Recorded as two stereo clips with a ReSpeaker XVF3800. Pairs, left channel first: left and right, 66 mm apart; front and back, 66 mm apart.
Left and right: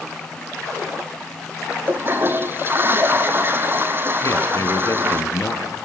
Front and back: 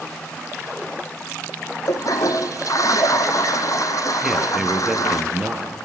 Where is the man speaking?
100° left, 2.5 m.